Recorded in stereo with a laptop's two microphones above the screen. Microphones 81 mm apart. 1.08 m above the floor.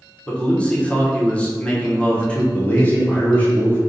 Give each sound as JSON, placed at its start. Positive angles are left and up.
{"t": 0.3, "sound": "a man speaking", "side_deg": 15, "distance_m": 0.8}
{"t": 2.5, "sound": "a man speaking", "side_deg": 20, "distance_m": 0.9}